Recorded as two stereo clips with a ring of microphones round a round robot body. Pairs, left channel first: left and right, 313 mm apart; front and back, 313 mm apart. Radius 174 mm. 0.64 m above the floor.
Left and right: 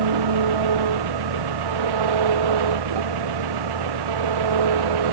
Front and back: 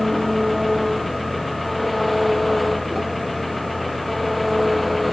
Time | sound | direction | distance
0.0 | an engine running | 90° right | ?